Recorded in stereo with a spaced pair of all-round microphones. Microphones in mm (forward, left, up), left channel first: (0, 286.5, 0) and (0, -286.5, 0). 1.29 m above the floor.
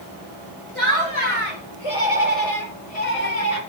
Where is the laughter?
55° left (ahead or behind), 6 m; by 3.6 s 75° left (ahead or behind), 5 m.